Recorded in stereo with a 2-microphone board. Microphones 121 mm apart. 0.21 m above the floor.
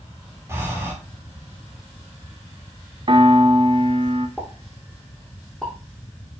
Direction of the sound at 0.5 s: 20° right (ahead or behind).